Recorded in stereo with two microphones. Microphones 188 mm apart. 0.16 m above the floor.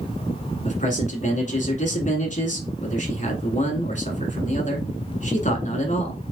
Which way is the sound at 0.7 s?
40° left (ahead or behind).